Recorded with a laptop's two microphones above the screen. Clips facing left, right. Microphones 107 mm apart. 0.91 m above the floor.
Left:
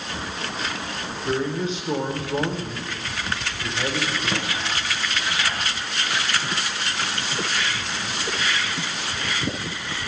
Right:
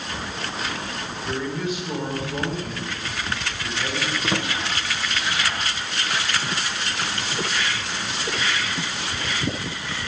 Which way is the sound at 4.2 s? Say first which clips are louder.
Right 2 dB; 20° right (ahead or behind).